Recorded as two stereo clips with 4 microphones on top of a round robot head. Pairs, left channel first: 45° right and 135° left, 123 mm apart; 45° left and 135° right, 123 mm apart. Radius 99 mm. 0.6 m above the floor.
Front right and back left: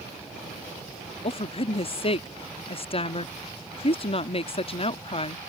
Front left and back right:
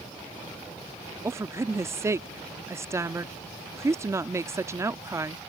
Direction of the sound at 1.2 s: 75° right.